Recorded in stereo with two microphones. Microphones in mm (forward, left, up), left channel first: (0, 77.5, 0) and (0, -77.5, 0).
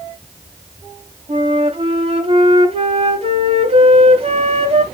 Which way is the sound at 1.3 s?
40° right (ahead or behind).